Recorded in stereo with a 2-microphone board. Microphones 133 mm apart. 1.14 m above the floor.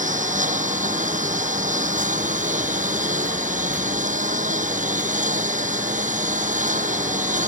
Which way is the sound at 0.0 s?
85° right.